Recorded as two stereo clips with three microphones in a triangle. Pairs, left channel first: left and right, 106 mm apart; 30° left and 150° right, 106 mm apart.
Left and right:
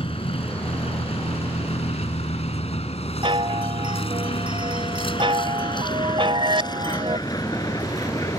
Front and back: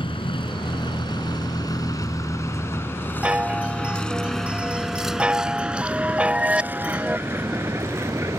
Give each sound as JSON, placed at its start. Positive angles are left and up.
{"t": 0.0, "sound": "a vehicle", "azimuth_deg": 65}
{"t": 3.2, "sound": "a chime", "azimuth_deg": -75}